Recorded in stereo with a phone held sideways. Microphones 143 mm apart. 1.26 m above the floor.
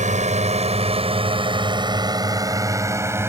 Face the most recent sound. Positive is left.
turn(degrees=-15)  # may be behind; listen again after turning